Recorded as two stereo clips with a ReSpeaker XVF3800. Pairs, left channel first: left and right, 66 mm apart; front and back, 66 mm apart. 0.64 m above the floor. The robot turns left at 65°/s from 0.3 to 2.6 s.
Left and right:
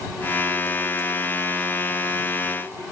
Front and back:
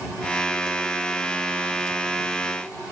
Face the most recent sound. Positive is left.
No sound to turn to.